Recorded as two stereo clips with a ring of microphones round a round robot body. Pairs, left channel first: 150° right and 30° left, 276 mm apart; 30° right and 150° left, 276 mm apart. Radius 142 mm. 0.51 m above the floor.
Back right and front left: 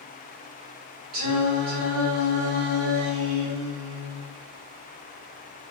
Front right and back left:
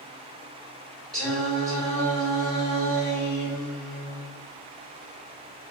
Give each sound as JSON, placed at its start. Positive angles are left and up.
{"t": 1.1, "sound": "singing", "azimuth_deg": 55, "distance_m": 2.0}